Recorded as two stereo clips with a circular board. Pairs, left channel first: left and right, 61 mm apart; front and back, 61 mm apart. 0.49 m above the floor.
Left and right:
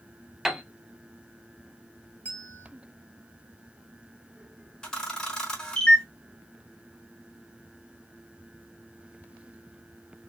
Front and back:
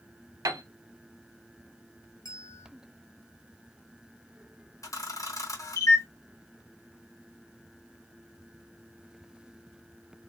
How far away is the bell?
About 1.4 m.